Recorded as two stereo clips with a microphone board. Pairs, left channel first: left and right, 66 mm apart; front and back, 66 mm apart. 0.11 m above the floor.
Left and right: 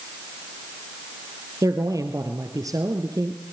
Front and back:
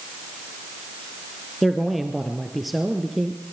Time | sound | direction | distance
1.6 | a man speaking | 90° right | 2 m